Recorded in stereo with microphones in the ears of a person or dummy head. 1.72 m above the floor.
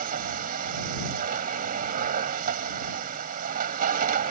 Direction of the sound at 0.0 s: 50° right (ahead or behind).